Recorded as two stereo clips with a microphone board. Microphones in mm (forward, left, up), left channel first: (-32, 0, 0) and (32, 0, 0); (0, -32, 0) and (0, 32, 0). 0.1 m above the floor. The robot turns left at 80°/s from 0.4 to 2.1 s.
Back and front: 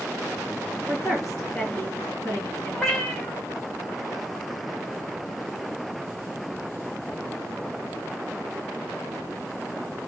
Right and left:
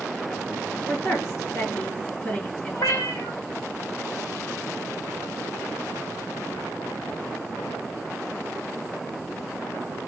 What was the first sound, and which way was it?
A woman speaking, 55° right.